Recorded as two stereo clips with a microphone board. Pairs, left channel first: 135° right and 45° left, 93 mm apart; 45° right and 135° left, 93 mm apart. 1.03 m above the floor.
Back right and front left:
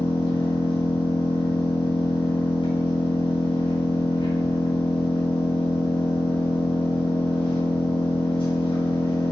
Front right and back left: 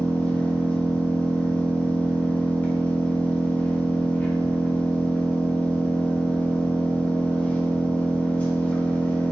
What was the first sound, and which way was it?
An engine running, 120° right.